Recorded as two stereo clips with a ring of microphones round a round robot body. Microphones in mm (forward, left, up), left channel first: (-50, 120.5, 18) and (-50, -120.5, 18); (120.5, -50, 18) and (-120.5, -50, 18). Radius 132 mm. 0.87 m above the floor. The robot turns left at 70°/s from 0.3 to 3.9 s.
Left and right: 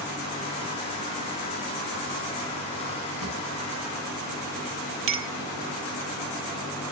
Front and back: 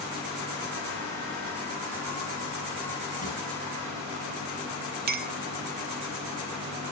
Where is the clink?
125° right, 1.0 m.